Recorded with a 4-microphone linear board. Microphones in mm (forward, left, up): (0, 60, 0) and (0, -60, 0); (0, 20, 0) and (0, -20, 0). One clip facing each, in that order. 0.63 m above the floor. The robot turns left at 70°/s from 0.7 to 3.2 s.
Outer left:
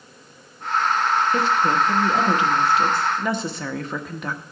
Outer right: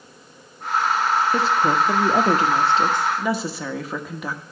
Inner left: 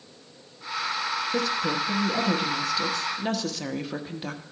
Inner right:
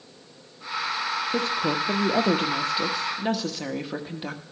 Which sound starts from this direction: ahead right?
A woman speaking, at 1.3 s.